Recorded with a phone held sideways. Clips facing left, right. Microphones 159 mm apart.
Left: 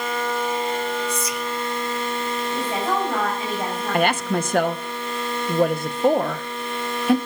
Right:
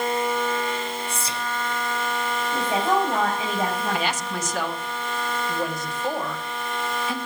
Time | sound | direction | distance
1.1 | whispering | 30° right (ahead or behind) | 1.0 m
2.5 | a woman speaking | 15° right (ahead or behind) | 5 m
3.9 | a woman speaking | 60° left (ahead or behind) | 1.0 m